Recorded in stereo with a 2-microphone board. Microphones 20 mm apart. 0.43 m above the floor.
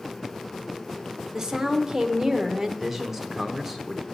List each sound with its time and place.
1.3 s a woman speaking: 30° right (ahead or behind), 0.9 m
2.8 s a man speaking: 20° right (ahead or behind), 0.9 m